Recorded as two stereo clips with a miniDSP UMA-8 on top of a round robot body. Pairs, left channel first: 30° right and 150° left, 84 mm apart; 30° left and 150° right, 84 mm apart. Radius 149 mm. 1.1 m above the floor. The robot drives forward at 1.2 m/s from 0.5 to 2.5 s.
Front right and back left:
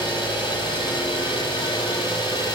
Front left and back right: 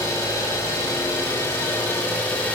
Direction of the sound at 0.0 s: 25° right.